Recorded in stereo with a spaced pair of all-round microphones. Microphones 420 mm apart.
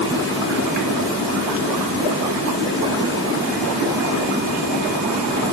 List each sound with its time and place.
Only background noise.